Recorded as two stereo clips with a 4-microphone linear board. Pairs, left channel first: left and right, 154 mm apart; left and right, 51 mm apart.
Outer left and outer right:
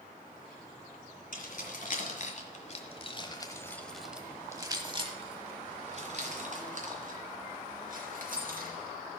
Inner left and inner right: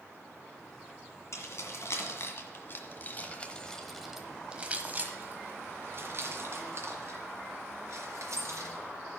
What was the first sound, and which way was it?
Keys jangling, 70° left (ahead or behind).